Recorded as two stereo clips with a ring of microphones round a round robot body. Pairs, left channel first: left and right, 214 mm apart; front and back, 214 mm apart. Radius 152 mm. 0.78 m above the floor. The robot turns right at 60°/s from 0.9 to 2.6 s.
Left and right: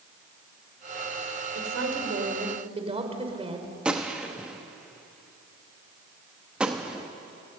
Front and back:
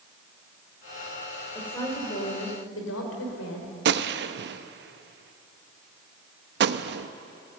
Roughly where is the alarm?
No alarm in this recording.